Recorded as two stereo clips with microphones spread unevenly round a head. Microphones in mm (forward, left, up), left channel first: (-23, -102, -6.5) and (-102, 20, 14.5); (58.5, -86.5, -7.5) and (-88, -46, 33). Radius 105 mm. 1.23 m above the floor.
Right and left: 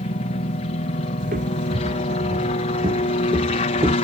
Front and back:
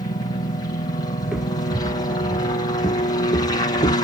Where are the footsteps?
85° left; by 4.0 s 55° left.